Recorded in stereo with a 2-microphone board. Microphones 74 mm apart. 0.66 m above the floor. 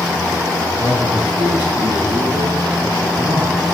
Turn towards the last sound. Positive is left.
turn(degrees=55)  # may be behind; listen again after turning